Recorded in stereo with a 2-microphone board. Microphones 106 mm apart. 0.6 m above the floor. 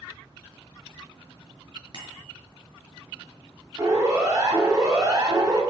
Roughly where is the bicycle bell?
Right.